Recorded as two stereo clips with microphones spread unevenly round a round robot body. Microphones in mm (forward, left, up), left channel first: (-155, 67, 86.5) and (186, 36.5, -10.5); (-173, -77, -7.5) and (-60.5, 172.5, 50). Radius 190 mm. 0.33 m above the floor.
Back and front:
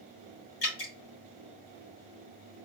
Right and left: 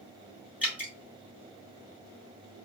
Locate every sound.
0.6 s dripping: 155° left, 3.5 m